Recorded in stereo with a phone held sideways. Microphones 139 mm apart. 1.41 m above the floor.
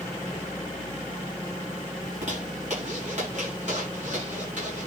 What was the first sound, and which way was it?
A zipper, 60° right (ahead or behind).